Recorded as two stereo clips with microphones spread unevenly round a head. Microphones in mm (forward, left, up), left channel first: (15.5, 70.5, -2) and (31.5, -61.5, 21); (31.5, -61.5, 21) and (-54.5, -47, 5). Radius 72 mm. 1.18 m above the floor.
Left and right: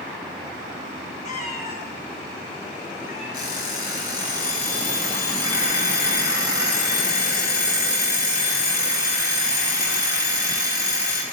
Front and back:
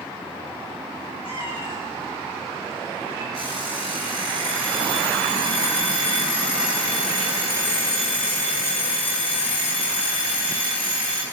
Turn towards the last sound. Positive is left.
turn(degrees=75)